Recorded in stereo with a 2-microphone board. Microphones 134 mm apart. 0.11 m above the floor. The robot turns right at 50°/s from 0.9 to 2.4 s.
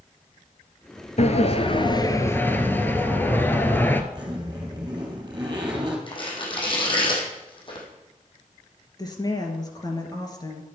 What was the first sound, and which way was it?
A sliding door, 100° left.